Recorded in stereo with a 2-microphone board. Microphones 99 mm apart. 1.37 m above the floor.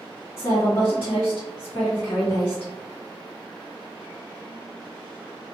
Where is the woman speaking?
65° left (ahead or behind), 2.0 m.